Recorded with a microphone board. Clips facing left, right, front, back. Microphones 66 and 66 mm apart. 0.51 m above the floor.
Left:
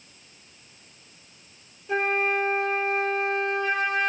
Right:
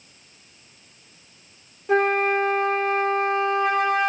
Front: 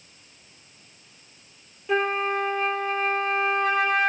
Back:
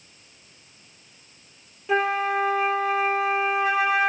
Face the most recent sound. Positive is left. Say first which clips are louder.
# right 5 dB, back 1 dB
turn(degrees=-95)